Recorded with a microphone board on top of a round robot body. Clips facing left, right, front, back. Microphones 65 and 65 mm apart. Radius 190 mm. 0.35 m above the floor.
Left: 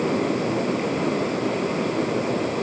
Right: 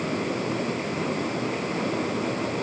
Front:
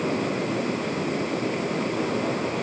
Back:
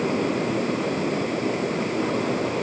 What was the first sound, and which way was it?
Only background noise.